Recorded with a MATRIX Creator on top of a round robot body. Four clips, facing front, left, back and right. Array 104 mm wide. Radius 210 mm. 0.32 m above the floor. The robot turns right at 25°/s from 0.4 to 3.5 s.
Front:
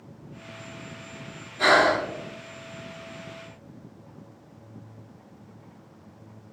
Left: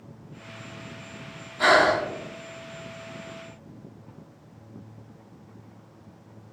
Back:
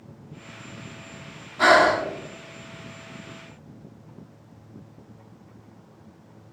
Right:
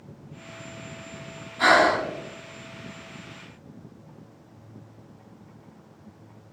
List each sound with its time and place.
1.6 s breathing: 175° right, 1.1 m; by 2.0 s 165° right, 1.1 m